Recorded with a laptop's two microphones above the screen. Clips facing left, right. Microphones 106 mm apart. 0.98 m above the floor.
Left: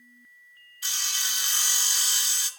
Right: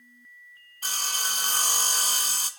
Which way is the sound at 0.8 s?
45° right (ahead or behind).